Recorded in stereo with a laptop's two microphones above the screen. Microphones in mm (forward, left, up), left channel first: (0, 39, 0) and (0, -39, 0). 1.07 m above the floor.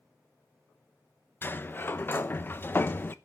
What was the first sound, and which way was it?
A sliding door, 30° left (ahead or behind).